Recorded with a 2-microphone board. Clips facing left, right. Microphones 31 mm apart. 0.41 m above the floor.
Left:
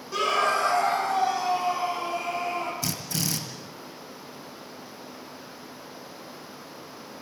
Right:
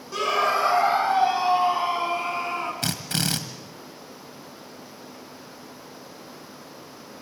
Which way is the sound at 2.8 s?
65° right (ahead or behind).